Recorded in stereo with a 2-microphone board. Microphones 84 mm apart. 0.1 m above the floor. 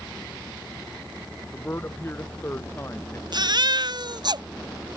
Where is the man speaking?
25° left (ahead or behind).